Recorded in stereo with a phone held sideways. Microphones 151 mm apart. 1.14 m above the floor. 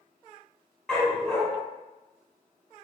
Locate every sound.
0.9 s a dog barking: 5° left (ahead or behind), 1.8 m